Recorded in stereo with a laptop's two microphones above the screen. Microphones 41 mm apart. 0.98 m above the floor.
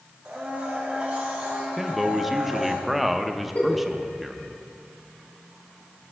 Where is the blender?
20° right (ahead or behind), 4 m.